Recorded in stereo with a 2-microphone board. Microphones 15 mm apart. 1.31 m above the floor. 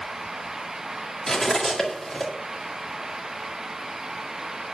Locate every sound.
1.3 s cutlery clinking: 30° left (ahead or behind), 1.8 m